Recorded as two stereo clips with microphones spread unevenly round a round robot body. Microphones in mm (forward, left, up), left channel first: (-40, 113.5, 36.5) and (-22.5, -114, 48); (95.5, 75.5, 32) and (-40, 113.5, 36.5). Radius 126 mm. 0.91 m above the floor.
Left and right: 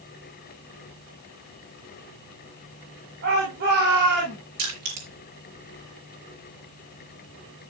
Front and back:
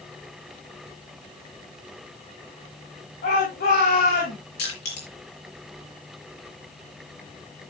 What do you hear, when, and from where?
3.2 s a shout: 35° right, 6.5 m; by 4.4 s 30° right, 8 m
4.6 s crushing: 55° right, 5.5 m